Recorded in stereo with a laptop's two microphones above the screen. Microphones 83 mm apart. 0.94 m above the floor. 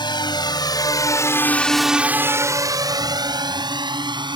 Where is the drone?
70° left (ahead or behind); by 4.4 s 70° right (ahead or behind).